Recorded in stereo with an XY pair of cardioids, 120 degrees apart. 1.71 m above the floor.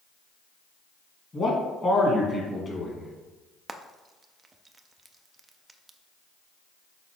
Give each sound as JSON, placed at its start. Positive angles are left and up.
{"t": 1.3, "sound": "a man speaking", "azimuth_deg": 25, "distance_m": 2.0}
{"t": 3.7, "sound": "frying", "azimuth_deg": -20, "distance_m": 0.5}